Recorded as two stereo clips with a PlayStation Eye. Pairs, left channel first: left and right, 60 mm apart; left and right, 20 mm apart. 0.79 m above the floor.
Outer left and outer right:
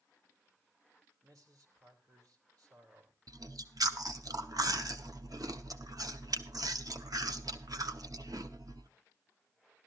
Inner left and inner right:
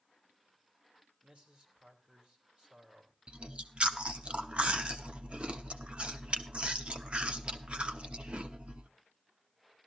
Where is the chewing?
80° right, 0.9 m.